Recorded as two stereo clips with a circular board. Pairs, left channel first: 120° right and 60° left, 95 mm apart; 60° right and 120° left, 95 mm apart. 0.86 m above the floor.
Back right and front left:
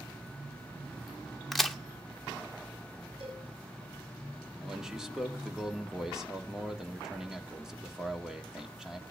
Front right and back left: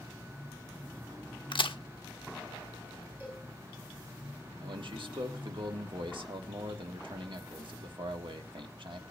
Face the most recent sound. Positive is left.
turn(degrees=145)